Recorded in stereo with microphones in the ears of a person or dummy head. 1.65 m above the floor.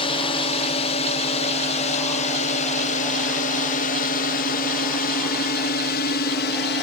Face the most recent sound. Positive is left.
turn(degrees=60)  # may be behind; listen again after turning